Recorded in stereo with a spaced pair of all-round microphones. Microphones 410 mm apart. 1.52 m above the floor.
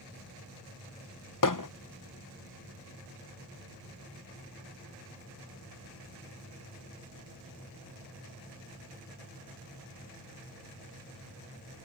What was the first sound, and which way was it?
Hammering, 50° left (ahead or behind).